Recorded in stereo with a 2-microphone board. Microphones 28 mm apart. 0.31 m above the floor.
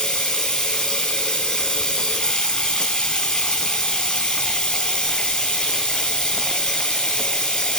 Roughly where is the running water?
Left.